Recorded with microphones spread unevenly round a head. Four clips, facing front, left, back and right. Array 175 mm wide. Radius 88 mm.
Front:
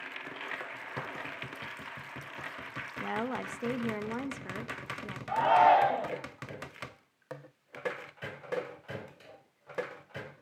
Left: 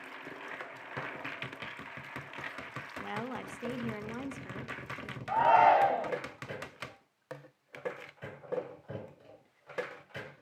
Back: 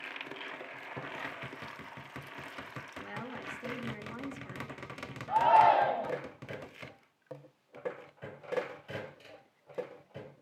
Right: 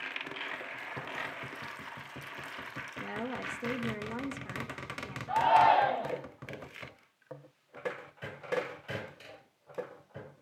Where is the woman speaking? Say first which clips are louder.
Right 1 dB, front 9 dB; 10° left, 2 m.